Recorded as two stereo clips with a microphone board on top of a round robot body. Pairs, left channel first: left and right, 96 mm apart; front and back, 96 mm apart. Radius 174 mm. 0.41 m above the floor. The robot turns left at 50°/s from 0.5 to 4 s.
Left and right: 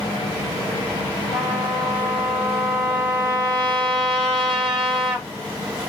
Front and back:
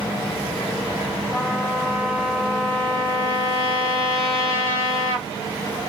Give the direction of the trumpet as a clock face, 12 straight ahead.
7 o'clock.